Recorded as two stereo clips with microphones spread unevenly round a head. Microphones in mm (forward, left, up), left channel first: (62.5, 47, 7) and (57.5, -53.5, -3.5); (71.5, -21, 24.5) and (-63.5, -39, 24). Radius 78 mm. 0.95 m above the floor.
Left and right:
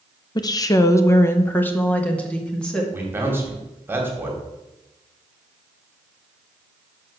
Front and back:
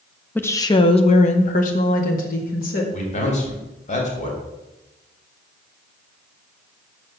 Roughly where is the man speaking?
Ahead right.